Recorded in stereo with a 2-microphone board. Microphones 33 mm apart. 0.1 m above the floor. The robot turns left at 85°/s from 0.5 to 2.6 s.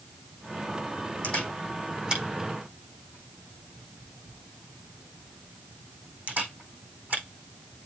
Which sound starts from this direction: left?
A camera shutter, at 1.2 s.